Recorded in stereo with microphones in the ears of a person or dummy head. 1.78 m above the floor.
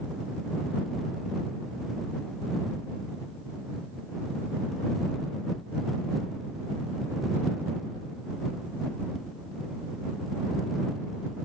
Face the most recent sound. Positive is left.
No sound to turn to.